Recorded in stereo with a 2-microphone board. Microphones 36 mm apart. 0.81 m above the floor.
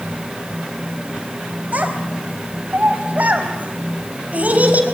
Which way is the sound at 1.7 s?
45° right (ahead or behind).